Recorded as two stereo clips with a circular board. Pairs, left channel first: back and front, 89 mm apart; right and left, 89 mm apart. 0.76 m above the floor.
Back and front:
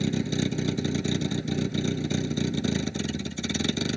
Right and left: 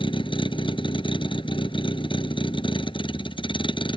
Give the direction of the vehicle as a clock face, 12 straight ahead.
3 o'clock.